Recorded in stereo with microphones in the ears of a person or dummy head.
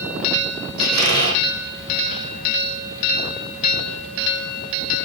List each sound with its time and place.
0.8 s a squeak: 45° right (ahead or behind), 3 m